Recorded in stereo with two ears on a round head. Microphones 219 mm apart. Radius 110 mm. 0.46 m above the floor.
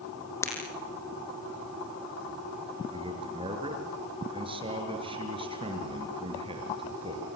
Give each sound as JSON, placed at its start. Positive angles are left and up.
{"t": 0.4, "sound": "breaking glass", "side_deg": 10, "distance_m": 6.0}
{"t": 2.9, "sound": "a man speaking", "side_deg": -25, "distance_m": 6.5}